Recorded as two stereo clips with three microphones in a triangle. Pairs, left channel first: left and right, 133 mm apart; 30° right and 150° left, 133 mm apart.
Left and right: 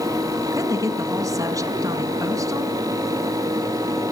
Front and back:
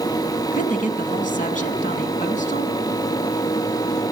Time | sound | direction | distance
0.5 | a woman speaking | 25° right | 4.5 m